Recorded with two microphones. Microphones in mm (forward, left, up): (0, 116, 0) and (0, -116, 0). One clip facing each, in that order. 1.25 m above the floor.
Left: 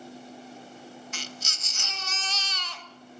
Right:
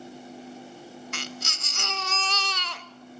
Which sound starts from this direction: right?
A baby crying, at 1.1 s.